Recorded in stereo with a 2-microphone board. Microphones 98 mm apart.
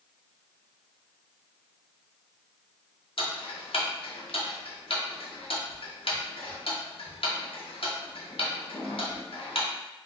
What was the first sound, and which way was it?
Ticking, 70° left (ahead or behind).